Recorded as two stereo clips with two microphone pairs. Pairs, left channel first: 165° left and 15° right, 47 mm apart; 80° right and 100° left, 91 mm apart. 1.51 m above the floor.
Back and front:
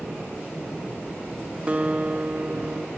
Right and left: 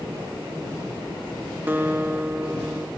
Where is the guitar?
40° left, 0.9 m.